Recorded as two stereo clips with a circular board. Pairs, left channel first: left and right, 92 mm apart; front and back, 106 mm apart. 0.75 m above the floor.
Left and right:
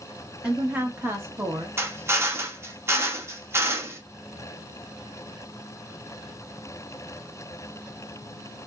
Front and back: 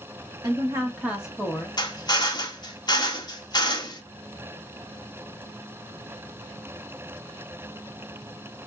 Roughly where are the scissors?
I don't hear scissors.